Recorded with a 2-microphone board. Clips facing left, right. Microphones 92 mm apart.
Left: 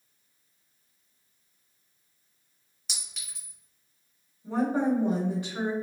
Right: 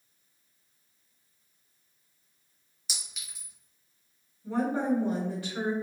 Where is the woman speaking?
20° left (ahead or behind), 1.5 m.